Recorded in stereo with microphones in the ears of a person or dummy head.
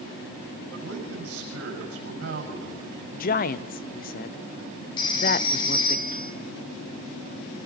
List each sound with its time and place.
0.7 s a man speaking: 80° right, 6 m
3.1 s a woman speaking: 40° left (ahead or behind), 0.7 m
5.0 s a phone ringing: 35° left (ahead or behind), 3 m